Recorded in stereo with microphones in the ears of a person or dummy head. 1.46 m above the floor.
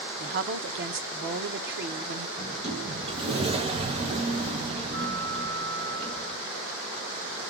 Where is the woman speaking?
55° right (ahead or behind), 1.0 m.